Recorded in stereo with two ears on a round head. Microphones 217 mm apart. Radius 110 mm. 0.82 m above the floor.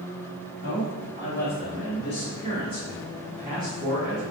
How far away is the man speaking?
About 2.0 m.